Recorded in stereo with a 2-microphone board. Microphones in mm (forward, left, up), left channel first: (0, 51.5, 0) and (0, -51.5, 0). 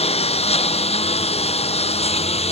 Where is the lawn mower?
80° left; by 2.5 s 85° left.